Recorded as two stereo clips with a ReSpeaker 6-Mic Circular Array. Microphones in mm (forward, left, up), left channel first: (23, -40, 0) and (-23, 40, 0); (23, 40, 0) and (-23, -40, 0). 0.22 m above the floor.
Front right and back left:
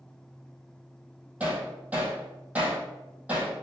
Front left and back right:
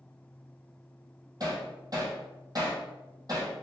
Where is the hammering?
165° right, 3 m.